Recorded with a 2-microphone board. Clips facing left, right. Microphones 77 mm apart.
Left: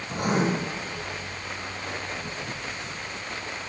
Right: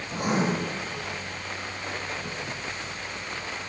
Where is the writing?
55° left (ahead or behind), 1.7 m.